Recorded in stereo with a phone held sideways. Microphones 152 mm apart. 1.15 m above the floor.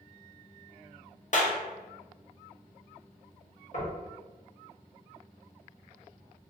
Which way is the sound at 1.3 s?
55° left (ahead or behind).